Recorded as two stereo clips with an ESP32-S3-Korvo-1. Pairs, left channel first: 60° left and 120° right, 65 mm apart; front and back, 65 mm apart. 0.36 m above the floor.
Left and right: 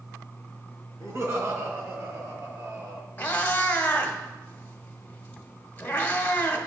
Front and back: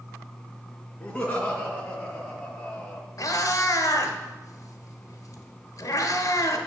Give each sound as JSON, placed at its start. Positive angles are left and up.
{"t": 1.0, "sound": "laughter", "azimuth_deg": -80, "distance_m": 3.0}
{"t": 3.2, "sound": "a cat meowing", "azimuth_deg": -5, "distance_m": 1.1}